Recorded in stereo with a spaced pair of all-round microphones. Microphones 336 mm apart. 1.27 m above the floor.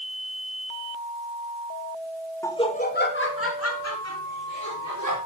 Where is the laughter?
10° left (ahead or behind), 1.2 m; by 5.2 s 55° left (ahead or behind), 3.5 m.